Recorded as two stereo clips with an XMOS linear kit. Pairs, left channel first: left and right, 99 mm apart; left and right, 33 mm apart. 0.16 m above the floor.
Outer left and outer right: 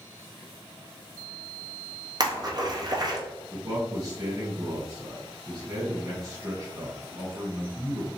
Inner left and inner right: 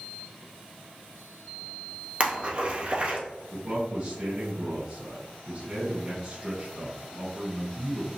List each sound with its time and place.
2.2 s a splash: 45° right (ahead or behind), 1.3 m
3.5 s a man speaking: 35° right (ahead or behind), 1.6 m